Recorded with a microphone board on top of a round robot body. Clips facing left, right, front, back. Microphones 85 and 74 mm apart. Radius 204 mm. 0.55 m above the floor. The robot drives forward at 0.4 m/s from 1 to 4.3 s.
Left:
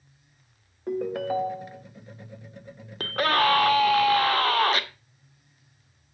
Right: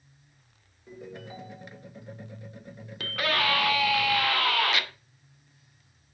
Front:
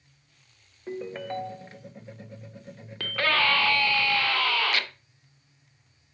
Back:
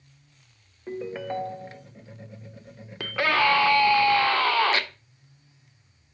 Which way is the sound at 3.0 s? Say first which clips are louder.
Left 6 dB, back 3 dB; 105° left.